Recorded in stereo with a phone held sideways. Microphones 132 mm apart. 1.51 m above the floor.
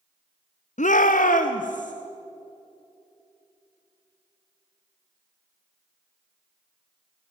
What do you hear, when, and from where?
0.8 s a shout: 65° left (ahead or behind), 0.8 m; by 1.9 s 75° left (ahead or behind), 2 m